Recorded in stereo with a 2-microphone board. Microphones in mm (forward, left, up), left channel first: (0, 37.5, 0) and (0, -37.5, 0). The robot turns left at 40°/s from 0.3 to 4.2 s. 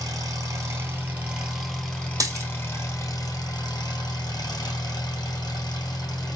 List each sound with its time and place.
0.0 s an engine running: 120° right, 1.7 m; by 6.4 s 80° left, 1.7 m
2.2 s a dropped coin: 55° right (ahead or behind), 1.6 m; by 2.5 s 40° right (ahead or behind), 1.6 m